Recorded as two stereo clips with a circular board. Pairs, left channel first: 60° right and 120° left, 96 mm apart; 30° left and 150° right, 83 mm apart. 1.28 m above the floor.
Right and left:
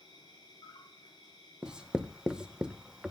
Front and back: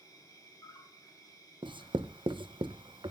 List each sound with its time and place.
0.0 s an insect: 20° right, 7.5 m
1.6 s writing: 160° right, 1.0 m